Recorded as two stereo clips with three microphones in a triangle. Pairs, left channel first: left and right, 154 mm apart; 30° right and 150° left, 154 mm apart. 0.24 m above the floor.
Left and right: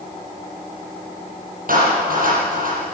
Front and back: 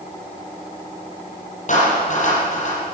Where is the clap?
65° right, 7 m.